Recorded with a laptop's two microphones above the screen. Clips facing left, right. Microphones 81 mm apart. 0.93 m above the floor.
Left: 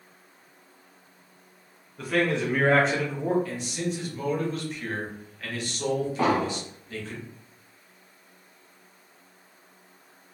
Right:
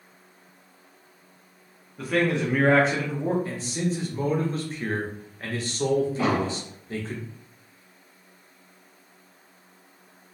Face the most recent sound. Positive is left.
turn(degrees=55)  # may be behind; listen again after turning